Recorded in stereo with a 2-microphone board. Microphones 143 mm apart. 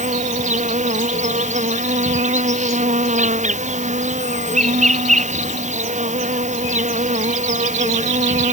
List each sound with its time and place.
0.0 s an insect: 55° right (ahead or behind)